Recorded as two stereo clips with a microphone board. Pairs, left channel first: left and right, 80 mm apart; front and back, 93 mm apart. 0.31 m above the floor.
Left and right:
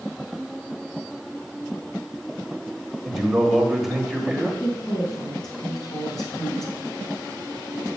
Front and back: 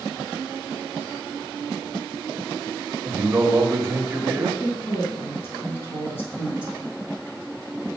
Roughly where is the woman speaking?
Ahead left.